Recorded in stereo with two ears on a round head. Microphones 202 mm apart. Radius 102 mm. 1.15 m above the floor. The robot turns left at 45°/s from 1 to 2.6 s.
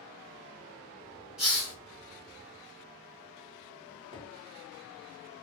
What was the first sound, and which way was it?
A hiss, 5° right (ahead or behind).